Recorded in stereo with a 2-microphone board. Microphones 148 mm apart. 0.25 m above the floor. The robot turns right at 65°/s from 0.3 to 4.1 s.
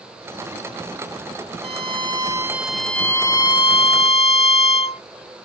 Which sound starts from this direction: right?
A violin, at 1.6 s.